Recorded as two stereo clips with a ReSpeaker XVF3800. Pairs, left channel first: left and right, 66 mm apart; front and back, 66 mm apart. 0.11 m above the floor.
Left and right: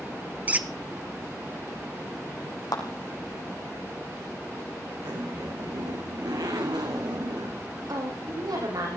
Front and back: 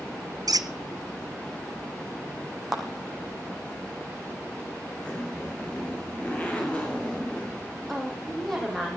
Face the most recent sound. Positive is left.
turn(degrees=-85)